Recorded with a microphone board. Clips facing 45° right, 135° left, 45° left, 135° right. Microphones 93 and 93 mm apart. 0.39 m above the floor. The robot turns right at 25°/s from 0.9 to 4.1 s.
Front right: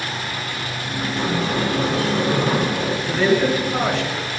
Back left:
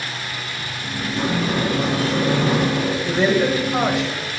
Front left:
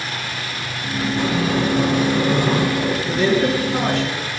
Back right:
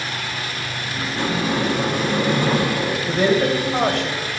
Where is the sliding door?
165° left, 3.5 m; by 3.0 s 150° right, 3.5 m.